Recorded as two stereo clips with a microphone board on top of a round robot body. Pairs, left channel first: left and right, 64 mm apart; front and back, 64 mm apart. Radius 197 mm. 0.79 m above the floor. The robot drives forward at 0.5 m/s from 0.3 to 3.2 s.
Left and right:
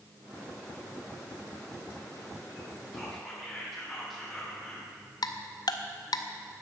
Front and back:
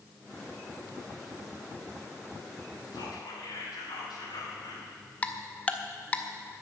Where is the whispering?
5° left, 3 m.